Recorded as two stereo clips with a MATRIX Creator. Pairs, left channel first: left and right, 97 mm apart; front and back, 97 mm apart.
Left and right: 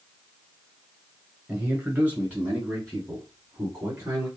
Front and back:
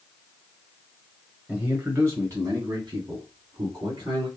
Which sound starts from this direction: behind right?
A man speaking, at 1.5 s.